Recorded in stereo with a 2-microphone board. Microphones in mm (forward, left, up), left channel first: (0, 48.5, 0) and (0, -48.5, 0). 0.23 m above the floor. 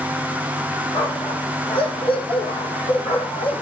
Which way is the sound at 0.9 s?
65° left (ahead or behind).